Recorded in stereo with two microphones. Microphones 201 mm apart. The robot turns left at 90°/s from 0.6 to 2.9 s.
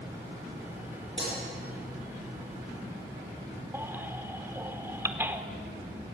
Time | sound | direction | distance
1.2 | breaking glass | 65° right (ahead or behind) | 10 m
3.7 | a baby crying | 10° right (ahead or behind) | 1.2 m